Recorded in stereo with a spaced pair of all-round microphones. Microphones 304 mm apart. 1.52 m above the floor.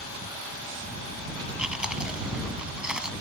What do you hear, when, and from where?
1.6 s chewing: 5° right (ahead or behind)